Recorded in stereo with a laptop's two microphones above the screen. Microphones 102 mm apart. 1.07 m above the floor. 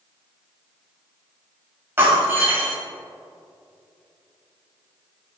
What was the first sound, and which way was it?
Breaking glass, 25° right (ahead or behind).